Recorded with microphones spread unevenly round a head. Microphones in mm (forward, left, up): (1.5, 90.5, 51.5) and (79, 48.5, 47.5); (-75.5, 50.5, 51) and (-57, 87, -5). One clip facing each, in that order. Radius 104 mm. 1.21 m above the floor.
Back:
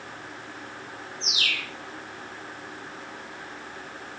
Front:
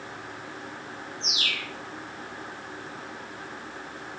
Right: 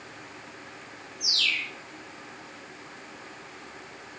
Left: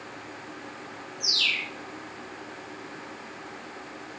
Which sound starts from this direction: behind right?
A bird, at 1.2 s.